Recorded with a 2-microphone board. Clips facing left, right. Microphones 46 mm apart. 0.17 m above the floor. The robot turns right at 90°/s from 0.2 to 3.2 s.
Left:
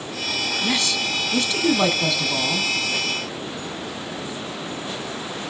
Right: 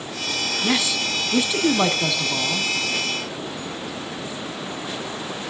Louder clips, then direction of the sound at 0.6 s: Right 2 dB; 10° right (ahead or behind).